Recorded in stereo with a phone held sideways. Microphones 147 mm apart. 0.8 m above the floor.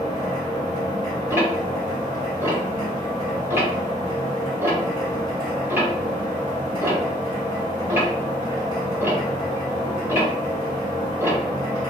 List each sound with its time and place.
0.0 s a machine running: 25° left (ahead or behind), 1.5 m
1.3 s ticking: 15° right (ahead or behind), 1.2 m